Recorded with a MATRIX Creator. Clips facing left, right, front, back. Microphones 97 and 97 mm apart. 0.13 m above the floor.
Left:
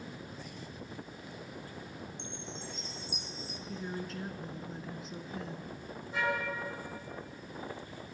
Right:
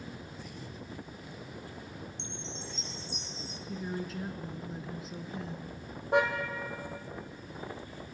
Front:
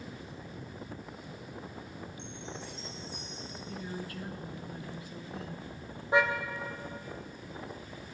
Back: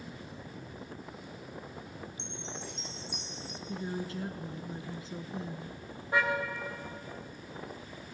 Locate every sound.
2.2 s a chime: 170° left, 2.0 m
3.7 s a woman speaking: 175° right, 1.2 m
6.1 s a car horn: 70° right, 2.5 m